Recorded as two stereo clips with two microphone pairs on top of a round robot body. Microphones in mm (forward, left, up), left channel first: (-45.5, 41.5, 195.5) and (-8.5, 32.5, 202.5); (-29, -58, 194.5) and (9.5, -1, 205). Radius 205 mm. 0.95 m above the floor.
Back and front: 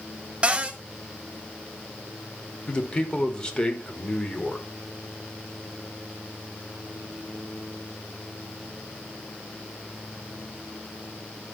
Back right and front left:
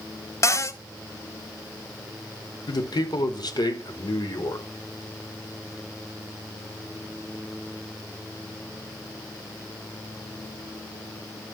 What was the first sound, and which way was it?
A cupboard door, 75° right.